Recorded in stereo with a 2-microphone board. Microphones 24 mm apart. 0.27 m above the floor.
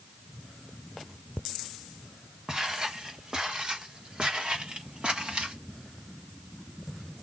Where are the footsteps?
30° right (ahead or behind), 5 m; by 5.5 s 60° right (ahead or behind), 5 m.